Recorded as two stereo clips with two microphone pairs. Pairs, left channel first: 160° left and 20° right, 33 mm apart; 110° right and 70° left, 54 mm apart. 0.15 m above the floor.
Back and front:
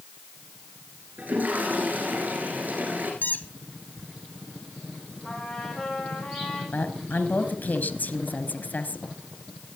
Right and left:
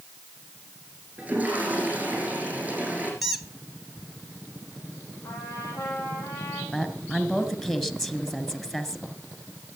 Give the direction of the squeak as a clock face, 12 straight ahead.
7 o'clock.